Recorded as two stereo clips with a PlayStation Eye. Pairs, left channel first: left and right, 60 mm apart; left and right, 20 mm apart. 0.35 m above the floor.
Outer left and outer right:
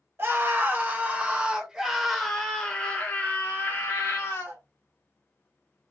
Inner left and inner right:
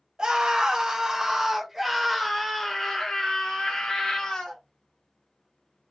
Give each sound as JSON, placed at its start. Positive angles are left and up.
{"t": 0.2, "sound": "a scream", "side_deg": -45, "distance_m": 1.5}